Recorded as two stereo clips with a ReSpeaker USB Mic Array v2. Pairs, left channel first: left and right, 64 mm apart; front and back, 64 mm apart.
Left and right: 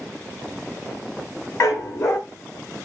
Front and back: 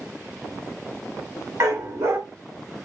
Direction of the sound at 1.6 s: 135° left.